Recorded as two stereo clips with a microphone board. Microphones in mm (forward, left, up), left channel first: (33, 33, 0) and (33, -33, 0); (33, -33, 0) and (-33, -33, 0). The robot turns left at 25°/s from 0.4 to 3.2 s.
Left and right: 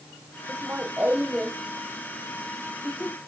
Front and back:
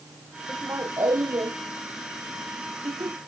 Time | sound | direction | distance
0.5 | laughter | 140° right | ?